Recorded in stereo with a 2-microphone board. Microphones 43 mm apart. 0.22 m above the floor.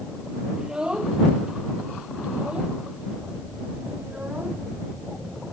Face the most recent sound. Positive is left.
turn(degrees=-35)  # may be behind; listen again after turning